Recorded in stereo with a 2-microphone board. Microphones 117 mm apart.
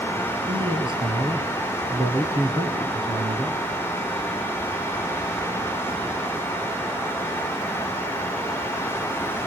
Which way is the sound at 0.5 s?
45° right (ahead or behind).